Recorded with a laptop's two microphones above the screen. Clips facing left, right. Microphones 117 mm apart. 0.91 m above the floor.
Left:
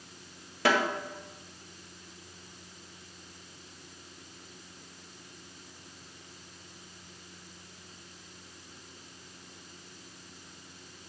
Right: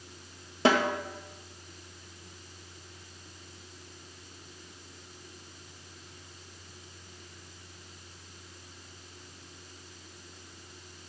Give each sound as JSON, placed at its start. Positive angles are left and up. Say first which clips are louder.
{"t": 0.7, "sound": "a snare drum", "louder": "right 2 dB", "side_deg": -25, "distance_m": 0.8}